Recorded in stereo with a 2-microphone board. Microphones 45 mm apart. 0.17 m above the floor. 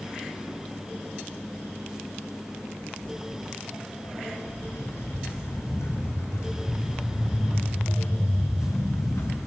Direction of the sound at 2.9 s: 80° left.